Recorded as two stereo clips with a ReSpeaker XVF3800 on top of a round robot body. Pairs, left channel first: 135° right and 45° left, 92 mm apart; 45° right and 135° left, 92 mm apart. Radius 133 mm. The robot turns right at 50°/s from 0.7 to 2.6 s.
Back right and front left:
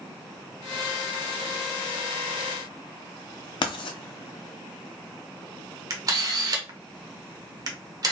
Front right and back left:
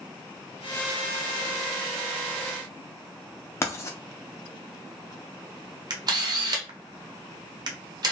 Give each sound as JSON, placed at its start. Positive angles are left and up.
{"t": 3.6, "sound": "writing", "azimuth_deg": -105, "distance_m": 0.7}
{"t": 5.9, "sound": "a camera shutter", "azimuth_deg": 95, "distance_m": 0.8}